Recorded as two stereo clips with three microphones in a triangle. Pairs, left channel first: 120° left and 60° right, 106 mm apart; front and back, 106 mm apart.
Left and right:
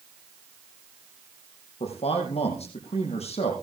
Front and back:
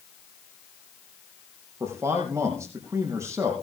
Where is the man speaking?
115° left, 5 m.